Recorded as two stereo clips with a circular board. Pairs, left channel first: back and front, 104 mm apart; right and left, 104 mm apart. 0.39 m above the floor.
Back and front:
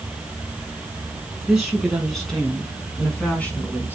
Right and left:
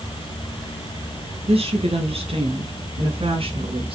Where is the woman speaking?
85° left, 4.5 m; by 4.0 s 110° left, 4 m.